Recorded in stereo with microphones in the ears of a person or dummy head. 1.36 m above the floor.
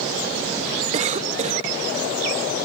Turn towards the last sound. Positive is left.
turn(degrees=-35)  # may be behind; listen again after turning